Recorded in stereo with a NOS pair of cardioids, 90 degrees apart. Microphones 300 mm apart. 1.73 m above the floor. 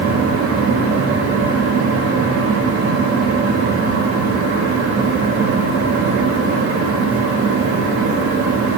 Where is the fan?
50° right, 4 m.